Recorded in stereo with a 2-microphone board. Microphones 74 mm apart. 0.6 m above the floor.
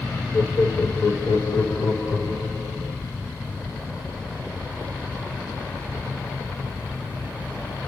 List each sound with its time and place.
0.3 s laughter: 65° left (ahead or behind), 1.8 m; by 2.9 s 70° left (ahead or behind), 3 m